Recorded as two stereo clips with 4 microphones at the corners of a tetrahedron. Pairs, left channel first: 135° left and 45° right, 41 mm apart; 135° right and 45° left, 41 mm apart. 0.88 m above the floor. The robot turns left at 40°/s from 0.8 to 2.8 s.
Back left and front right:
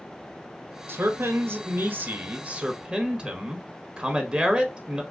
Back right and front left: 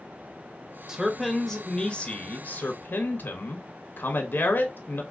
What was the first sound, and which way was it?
A man speaking, 30° right.